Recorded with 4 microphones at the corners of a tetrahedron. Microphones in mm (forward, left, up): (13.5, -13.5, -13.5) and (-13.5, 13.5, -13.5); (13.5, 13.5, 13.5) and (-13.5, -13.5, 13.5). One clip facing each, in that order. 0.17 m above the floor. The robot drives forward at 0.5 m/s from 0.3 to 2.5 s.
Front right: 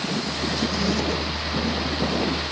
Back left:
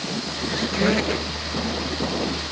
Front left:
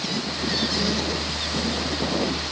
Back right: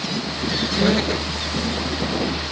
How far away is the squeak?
About 0.7 m.